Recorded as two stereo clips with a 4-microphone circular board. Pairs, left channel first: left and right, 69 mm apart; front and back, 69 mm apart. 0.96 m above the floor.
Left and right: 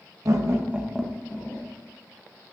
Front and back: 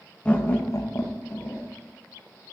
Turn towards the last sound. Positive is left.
turn(degrees=45)